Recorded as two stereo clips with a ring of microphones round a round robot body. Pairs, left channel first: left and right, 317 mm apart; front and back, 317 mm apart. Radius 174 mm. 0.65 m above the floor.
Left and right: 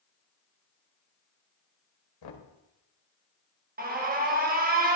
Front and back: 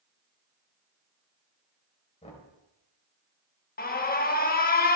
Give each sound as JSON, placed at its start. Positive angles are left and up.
{"t": 2.2, "sound": "knocking", "azimuth_deg": 75, "distance_m": 1.7}
{"t": 3.8, "sound": "an alarm", "azimuth_deg": -45, "distance_m": 0.9}